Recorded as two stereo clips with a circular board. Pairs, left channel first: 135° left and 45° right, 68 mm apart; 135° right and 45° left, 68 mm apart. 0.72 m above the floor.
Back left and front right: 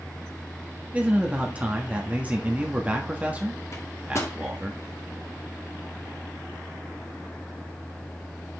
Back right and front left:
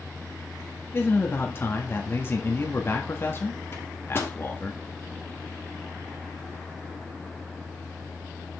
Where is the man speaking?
105° right, 1.4 m.